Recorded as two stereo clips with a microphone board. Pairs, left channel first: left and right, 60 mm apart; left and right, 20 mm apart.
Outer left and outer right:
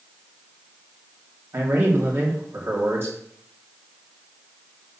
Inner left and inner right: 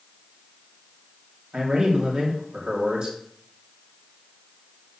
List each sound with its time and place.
1.5 s a man speaking: 45° right (ahead or behind), 3 m